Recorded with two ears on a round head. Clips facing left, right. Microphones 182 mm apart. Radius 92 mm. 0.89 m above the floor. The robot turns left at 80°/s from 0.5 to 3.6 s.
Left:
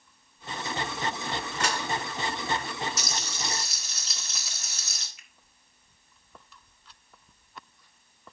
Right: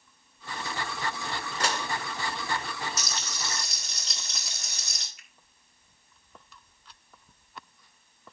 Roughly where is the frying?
Ahead left.